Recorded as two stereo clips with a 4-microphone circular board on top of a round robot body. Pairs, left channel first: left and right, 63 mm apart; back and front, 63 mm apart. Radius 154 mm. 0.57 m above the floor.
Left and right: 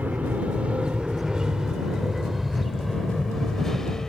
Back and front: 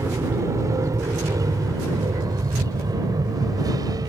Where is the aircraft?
30° right; by 4.1 s 10° left.